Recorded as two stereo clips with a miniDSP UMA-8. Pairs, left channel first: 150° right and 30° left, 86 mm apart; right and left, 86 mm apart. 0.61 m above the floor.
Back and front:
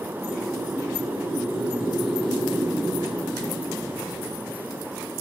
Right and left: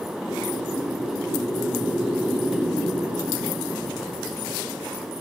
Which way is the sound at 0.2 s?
60° right.